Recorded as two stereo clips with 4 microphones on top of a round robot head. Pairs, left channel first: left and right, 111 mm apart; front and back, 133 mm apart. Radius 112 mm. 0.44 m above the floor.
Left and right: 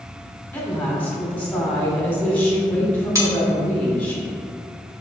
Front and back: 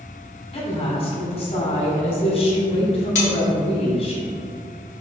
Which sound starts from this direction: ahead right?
Cutlery clinking, at 3.1 s.